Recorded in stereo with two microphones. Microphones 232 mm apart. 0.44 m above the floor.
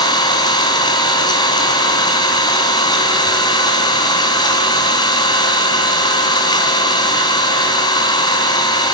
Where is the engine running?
20° left (ahead or behind), 4.5 m.